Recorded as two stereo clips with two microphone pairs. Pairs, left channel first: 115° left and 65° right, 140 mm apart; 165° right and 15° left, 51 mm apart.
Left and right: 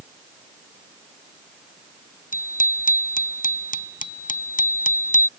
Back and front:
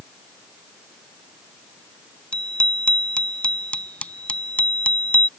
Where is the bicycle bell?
130° left; by 5.3 s 135° left.